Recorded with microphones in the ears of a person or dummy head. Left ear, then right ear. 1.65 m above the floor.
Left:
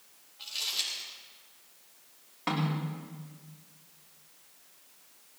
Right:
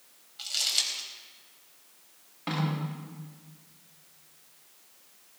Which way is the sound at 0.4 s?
65° right (ahead or behind).